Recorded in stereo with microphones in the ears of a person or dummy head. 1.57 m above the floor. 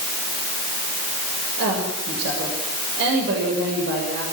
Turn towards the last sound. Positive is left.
turn(degrees=-60)  # may be behind; listen again after turning